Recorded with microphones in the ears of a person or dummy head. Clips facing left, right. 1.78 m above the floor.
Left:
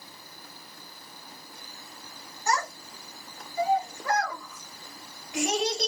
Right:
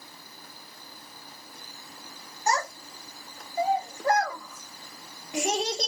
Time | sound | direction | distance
2.5 | a child speaking | 35° right (ahead or behind) | 1.3 m